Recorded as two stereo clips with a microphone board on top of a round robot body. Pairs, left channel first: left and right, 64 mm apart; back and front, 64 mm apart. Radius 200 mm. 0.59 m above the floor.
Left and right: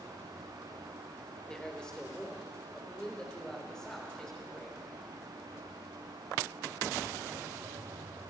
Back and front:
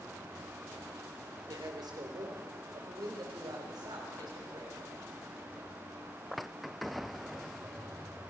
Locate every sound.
1.5 s a man speaking: 10° left, 3.5 m